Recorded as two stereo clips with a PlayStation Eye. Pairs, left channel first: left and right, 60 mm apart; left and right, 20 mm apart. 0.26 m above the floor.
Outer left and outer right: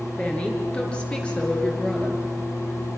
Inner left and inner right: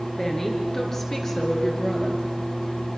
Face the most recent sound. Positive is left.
turn(degrees=10)  # may be behind; listen again after turning